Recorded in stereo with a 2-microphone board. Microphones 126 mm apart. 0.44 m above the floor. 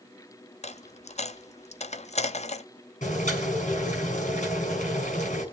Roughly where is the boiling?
Left.